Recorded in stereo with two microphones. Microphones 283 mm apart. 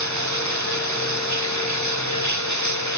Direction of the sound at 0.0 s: 85° right.